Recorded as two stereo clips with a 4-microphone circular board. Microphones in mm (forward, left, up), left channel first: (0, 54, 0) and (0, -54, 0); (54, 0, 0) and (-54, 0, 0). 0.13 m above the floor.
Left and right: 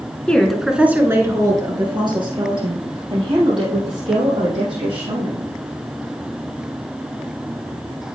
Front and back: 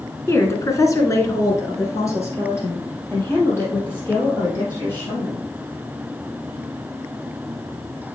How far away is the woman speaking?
About 1.3 m.